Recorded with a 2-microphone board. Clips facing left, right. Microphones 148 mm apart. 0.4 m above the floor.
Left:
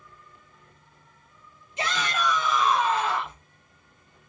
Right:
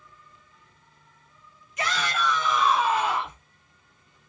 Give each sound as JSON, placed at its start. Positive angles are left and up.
{"t": 1.8, "sound": "a shout", "side_deg": 25, "distance_m": 1.2}